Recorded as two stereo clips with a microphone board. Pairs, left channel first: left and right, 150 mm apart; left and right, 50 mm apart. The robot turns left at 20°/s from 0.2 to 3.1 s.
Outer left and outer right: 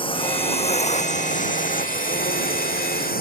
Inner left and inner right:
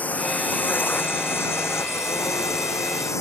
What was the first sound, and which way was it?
A drone, 145° left.